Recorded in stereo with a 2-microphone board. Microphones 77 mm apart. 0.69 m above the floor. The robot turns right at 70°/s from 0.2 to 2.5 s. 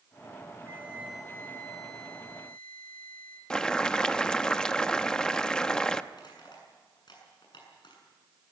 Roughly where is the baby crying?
I don't hear a baby crying.